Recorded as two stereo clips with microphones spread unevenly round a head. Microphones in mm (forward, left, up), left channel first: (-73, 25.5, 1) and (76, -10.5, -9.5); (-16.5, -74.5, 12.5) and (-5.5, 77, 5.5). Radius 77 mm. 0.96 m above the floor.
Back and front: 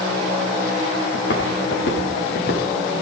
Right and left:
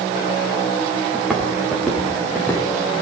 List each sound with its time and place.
1.1 s footsteps: 175° left, 5 m; by 2.9 s 170° right, 4.5 m